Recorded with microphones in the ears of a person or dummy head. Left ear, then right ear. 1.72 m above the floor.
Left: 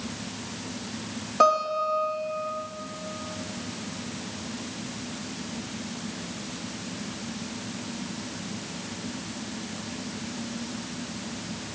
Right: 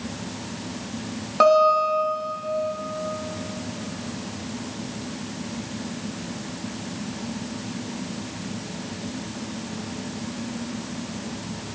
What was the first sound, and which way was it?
A guitar, 10° right (ahead or behind).